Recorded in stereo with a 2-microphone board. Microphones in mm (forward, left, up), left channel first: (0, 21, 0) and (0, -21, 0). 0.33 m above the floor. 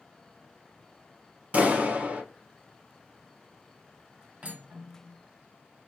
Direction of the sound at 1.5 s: 40° right (ahead or behind).